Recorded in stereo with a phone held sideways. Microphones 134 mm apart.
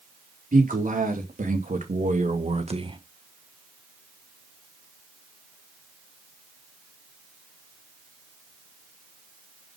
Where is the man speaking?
85° right, 4 m; by 3.0 s 35° right (ahead or behind), 1.3 m.